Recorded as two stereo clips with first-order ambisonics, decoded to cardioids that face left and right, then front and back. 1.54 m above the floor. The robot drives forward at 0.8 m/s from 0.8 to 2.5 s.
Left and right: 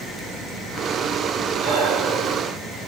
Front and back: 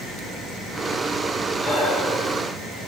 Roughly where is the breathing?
Ahead right.